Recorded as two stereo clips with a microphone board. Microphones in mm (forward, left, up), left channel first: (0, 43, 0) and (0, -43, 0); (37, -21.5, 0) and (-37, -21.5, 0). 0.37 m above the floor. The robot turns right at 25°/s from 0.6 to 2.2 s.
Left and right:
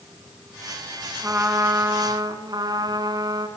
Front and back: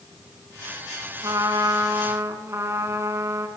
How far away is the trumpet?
About 3.5 m.